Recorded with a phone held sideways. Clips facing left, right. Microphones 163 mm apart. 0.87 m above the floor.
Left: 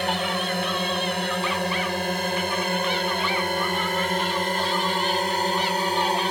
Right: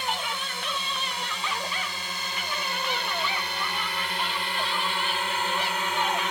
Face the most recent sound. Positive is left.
turn(degrees=35)  # may be behind; listen again after turning